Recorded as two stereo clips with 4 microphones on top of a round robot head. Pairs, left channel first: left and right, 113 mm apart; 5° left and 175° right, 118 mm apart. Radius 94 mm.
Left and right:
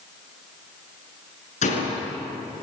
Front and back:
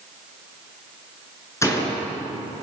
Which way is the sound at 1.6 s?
75° left.